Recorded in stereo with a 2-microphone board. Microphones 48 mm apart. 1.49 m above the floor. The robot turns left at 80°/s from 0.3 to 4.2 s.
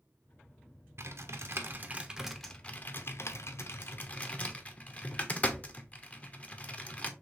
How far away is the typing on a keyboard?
About 0.6 m.